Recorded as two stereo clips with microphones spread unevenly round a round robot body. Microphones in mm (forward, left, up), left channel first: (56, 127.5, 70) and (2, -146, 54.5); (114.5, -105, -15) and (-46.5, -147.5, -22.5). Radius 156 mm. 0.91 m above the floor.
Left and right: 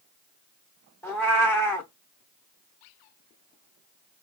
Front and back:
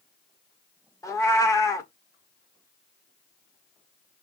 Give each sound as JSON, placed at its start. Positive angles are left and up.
{"t": 1.0, "sound": "a cat meowing", "azimuth_deg": 20, "distance_m": 0.5}